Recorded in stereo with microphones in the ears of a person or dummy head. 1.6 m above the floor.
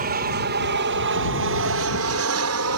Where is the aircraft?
40° right (ahead or behind); by 2.8 s 70° right (ahead or behind).